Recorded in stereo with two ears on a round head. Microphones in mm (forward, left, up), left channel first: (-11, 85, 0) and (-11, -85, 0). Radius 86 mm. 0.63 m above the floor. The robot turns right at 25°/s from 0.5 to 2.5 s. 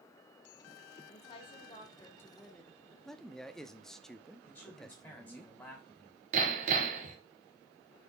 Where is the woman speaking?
135° left, 1.2 m; by 3.0 s 175° left, 1.2 m.